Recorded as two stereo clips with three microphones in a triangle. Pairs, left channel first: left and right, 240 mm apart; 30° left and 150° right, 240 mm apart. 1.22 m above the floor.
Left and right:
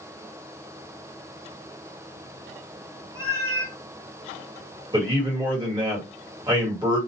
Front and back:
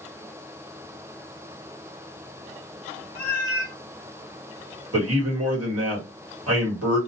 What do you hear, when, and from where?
3.1 s a cat meowing: 170° right, 1.6 m
4.9 s a man speaking: 160° right, 1.4 m